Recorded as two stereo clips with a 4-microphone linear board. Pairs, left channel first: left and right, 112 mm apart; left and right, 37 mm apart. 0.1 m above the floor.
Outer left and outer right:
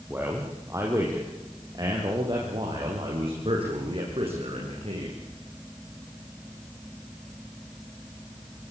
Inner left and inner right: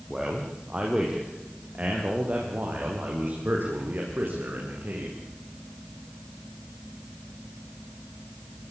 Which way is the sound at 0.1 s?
15° right (ahead or behind).